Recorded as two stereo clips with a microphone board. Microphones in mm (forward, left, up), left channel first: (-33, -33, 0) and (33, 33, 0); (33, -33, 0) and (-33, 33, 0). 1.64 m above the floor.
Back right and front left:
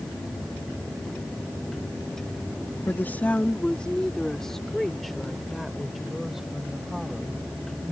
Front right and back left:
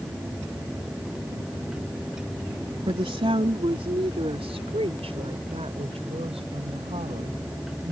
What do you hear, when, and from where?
2.9 s a woman speaking: 155° left; by 7.9 s 130° left